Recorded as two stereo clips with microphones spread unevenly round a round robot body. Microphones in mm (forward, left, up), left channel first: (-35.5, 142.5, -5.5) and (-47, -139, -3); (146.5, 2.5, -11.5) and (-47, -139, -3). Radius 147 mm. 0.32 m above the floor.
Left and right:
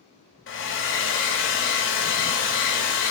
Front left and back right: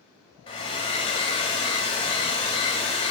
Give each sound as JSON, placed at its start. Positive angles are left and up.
{"t": 0.5, "sound": "a hair dryer", "azimuth_deg": 95, "distance_m": 1.7}